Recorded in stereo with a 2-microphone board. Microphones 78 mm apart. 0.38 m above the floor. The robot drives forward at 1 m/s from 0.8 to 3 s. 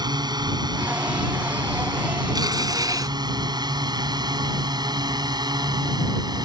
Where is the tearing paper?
65° right (ahead or behind); by 3.1 s 55° right (ahead or behind).